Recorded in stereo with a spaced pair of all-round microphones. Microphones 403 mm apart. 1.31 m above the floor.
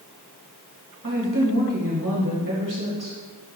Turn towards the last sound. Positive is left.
turn(degrees=-35)  # may be behind; listen again after turning